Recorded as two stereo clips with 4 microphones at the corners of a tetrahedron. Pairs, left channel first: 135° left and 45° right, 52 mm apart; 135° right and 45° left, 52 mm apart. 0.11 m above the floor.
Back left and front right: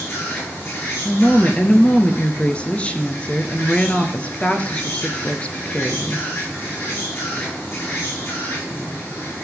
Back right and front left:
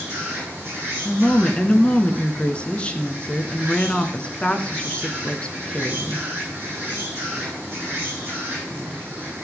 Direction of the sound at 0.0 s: 105° left.